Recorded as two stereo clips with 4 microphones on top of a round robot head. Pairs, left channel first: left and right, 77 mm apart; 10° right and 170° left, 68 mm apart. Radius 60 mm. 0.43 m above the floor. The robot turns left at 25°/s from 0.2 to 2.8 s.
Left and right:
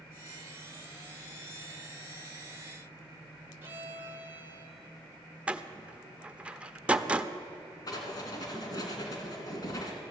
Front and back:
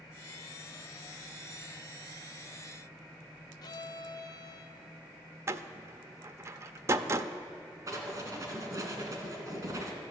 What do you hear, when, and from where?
3.6 s a violin: 30° right, 0.8 m
5.5 s a door slam: 160° right, 0.6 m
7.9 s writing: 130° left, 2.5 m